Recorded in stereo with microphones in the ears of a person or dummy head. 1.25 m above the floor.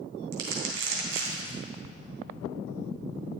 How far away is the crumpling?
About 3 m.